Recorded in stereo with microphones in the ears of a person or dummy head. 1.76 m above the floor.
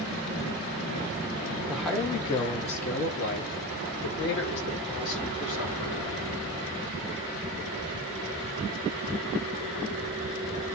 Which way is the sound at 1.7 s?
5° right (ahead or behind).